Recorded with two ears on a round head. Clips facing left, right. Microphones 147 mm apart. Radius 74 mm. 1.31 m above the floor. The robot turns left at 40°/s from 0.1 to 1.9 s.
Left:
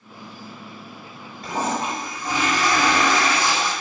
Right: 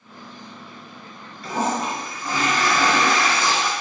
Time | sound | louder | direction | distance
1.4 | a toilet flushing | right 1 dB | 40° left (ahead or behind) | 2 m